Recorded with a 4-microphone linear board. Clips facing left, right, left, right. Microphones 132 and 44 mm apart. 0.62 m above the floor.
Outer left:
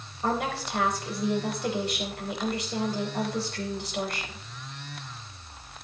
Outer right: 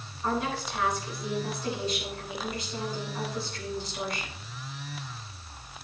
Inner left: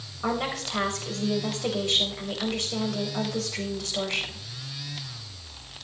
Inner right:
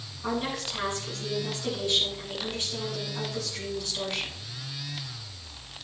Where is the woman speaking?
75° left (ahead or behind), 3.5 m.